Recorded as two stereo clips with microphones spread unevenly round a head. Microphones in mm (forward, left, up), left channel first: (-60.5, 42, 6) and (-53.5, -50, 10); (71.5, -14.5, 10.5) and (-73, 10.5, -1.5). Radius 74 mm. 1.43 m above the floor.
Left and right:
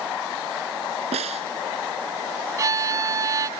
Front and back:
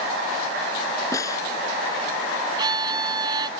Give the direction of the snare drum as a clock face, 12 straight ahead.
3 o'clock.